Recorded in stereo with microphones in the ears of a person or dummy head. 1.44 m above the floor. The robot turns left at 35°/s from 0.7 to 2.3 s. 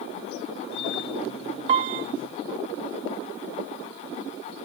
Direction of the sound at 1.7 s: 40° right (ahead or behind).